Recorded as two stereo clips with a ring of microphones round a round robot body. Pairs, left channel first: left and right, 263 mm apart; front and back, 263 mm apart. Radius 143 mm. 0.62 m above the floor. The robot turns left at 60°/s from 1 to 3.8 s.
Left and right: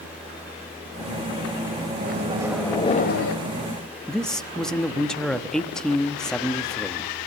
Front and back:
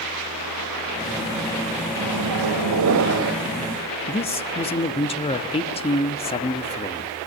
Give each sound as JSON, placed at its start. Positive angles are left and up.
{"t": 2.0, "sound": "a microwave", "azimuth_deg": -145, "distance_m": 2.5}
{"t": 4.1, "sound": "a man speaking", "azimuth_deg": 5, "distance_m": 1.1}